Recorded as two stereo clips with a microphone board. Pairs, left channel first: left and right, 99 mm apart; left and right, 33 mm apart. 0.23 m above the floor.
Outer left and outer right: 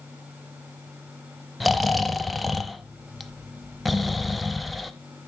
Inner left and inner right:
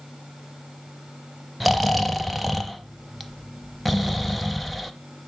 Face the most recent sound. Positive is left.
turn(degrees=0)  # may be behind; listen again after turning